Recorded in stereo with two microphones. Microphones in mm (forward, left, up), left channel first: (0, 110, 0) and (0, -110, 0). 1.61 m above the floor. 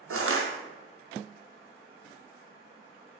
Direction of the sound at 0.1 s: 80° right.